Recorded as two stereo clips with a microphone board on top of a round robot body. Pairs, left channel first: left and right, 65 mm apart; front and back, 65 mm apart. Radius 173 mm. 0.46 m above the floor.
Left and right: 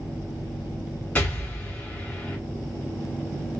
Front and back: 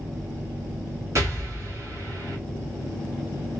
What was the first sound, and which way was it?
An explosion, 150° left.